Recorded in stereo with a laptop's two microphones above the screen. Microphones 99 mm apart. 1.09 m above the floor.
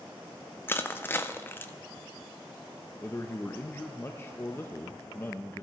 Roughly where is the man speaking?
Left.